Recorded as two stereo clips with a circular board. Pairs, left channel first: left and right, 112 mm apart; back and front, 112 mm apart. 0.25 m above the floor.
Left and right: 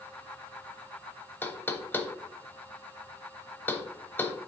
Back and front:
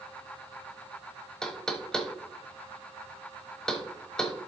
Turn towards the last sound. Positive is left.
turn(degrees=110)